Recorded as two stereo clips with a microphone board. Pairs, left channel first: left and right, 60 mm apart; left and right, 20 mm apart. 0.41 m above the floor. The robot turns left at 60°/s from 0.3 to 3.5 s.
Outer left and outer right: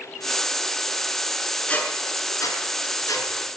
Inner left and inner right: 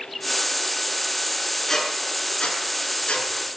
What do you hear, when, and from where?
1.7 s a squeak: 20° left (ahead or behind), 3.5 m; by 3.3 s 60° left (ahead or behind), 3.5 m